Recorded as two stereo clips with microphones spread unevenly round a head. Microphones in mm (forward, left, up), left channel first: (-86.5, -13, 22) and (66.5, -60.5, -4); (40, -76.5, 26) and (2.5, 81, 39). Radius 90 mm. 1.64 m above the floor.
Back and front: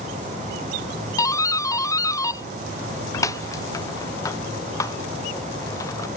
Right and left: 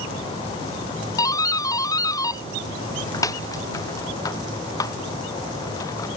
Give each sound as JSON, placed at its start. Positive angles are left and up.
{"t": 1.2, "sound": "a doorbell", "azimuth_deg": -125}